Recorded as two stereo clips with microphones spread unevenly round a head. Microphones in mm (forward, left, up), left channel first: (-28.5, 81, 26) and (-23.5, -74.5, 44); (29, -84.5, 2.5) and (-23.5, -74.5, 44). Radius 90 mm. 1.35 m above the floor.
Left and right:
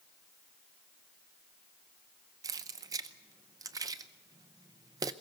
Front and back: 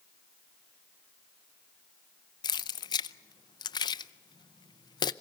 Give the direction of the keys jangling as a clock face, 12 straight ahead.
1 o'clock.